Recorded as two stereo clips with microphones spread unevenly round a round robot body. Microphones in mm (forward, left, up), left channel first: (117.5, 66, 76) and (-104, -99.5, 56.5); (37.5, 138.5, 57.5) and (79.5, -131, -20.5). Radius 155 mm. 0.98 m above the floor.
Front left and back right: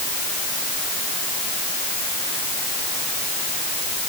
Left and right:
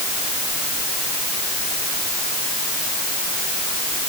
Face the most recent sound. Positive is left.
No sound to turn to.